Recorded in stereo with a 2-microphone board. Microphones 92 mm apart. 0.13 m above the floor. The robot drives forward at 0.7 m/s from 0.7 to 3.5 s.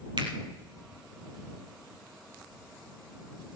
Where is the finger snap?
65° right (ahead or behind), 2.5 m.